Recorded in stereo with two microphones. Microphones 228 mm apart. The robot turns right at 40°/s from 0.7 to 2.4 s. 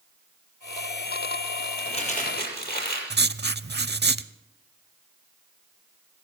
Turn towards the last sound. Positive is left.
turn(degrees=-50)  # may be behind; listen again after turning